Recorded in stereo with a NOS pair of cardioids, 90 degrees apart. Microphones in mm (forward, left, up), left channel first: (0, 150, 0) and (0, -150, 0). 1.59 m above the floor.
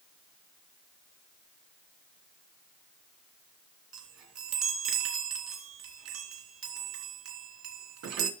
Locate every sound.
3.9 s a chime: 65° right, 3 m